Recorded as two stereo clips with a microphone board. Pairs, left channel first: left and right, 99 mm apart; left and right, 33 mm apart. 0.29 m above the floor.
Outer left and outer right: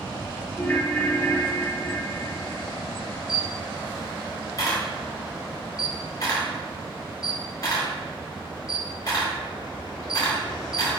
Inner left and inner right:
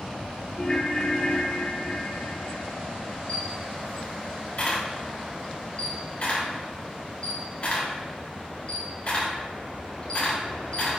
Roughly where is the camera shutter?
Left.